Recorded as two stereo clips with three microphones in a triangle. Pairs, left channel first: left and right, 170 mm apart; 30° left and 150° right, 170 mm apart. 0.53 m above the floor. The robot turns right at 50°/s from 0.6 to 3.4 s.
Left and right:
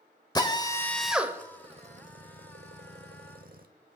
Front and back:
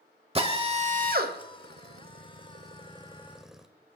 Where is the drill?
160° left, 1.0 m; by 3.6 s 60° right, 1.0 m.